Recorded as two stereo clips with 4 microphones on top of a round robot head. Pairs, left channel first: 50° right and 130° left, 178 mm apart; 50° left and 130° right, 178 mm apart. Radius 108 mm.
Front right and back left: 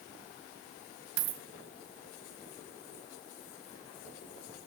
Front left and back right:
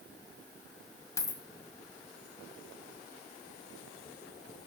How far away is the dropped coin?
About 1.7 m.